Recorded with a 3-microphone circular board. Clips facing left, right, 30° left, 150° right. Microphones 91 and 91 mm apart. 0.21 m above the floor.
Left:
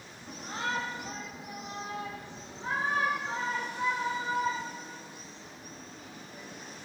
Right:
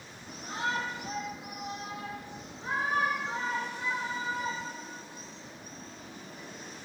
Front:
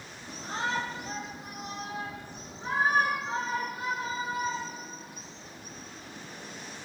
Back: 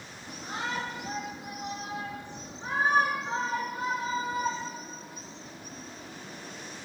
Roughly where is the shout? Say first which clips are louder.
Right 1 dB, front 2 dB; behind left.